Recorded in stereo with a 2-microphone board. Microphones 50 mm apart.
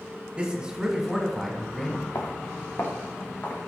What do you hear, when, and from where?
0.4 s a man speaking: 25° right (ahead or behind), 1.6 m; by 2.0 s 15° left (ahead or behind), 1.6 m
2.1 s footsteps: 85° left, 1.4 m; by 3.6 s 40° left (ahead or behind), 3 m